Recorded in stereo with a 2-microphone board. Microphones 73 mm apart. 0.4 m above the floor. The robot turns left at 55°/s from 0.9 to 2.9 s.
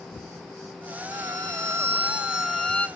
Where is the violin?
105° right, 1.5 m; by 2.9 s 160° left, 1.5 m.